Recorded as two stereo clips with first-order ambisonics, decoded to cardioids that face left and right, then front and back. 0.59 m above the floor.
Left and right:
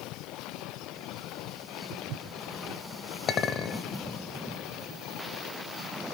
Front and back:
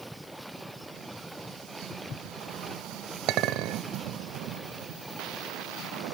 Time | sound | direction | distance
1.9 | footsteps | 55° right | 3 m
3.3 | a clink | 145° left | 1.6 m